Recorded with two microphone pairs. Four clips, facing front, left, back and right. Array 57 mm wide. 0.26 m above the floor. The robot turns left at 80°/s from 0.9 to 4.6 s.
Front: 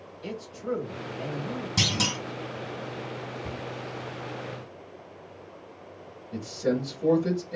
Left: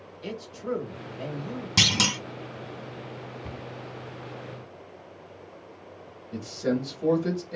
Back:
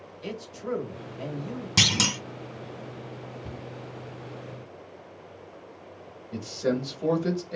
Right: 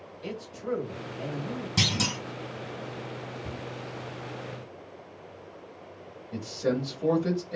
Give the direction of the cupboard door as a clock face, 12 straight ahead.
11 o'clock.